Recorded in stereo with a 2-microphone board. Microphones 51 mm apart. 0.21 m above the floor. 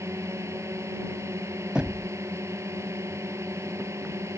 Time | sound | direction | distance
0.0 | a drone | 65° right (ahead or behind) | ?
1.8 | knocking | 20° right (ahead or behind) | ?